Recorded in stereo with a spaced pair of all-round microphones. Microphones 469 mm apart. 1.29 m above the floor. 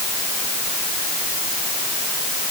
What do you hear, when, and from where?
Only background noise.